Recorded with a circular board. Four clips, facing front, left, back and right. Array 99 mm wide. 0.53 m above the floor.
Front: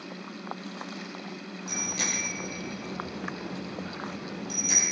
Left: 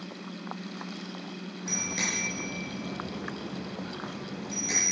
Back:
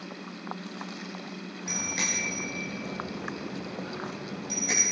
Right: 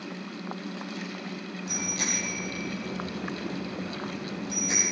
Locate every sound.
1.7 s a bicycle bell: 150° left, 6.5 m; by 4.8 s 170° left, 9.5 m